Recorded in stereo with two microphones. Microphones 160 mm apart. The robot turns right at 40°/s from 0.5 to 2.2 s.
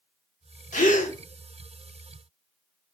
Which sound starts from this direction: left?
A gasp, at 0.7 s.